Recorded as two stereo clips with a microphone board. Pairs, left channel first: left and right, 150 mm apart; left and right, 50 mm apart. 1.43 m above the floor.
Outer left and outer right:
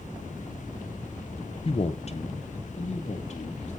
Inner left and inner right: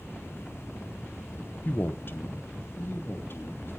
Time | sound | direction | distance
1.6 | a man speaking | 40° left (ahead or behind) | 0.8 m